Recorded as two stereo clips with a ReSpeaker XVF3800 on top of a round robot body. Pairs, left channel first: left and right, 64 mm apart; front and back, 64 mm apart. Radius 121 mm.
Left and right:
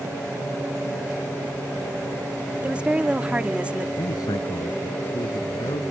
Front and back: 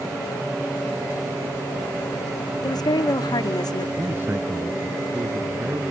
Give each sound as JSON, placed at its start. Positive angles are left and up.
{"t": 2.6, "sound": "a woman speaking", "azimuth_deg": -15}
{"t": 4.0, "sound": "a man speaking", "azimuth_deg": 120}